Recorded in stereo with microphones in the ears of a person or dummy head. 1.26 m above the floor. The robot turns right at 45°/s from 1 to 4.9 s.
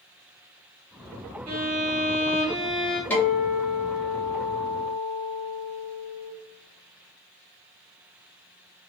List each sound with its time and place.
1.5 s a violin: 65° right, 1.4 m; by 3.0 s 5° left, 1.4 m
3.1 s a guitar: 5° left, 1.8 m; by 6.3 s 85° left, 1.8 m